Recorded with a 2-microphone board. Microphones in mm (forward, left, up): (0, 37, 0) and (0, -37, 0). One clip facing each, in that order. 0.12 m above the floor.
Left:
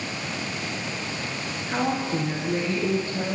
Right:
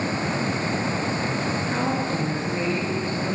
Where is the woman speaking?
10° left (ahead or behind), 1.3 m; by 3.4 s 35° left (ahead or behind), 1.9 m.